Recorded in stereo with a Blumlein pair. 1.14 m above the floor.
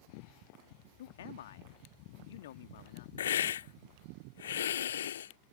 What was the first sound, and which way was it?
A man speaking, 60° left.